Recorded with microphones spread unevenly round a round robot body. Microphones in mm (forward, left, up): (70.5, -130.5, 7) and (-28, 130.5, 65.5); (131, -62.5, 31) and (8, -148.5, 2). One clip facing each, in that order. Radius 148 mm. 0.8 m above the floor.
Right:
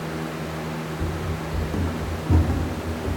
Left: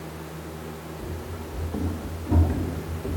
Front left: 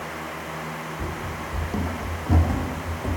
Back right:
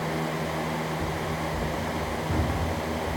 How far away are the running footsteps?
About 1.2 m.